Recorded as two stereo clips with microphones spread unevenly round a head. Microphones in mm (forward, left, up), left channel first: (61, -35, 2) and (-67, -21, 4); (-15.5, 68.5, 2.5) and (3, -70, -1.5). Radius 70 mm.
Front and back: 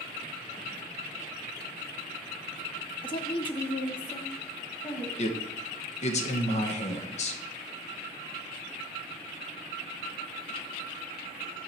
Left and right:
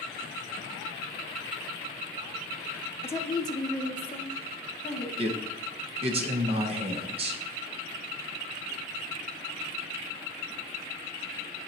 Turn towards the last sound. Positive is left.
turn(degrees=-35)